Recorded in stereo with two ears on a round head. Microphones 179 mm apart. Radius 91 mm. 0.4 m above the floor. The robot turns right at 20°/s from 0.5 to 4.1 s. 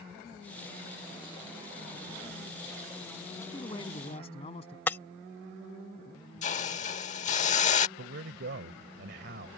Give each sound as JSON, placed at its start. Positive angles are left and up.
{"t": 3.4, "sound": "a man speaking", "side_deg": 15}
{"t": 4.9, "sound": "breaking glass", "side_deg": 10}
{"t": 6.4, "sound": "a hiss", "side_deg": 35}
{"t": 8.0, "sound": "a man speaking", "side_deg": -55}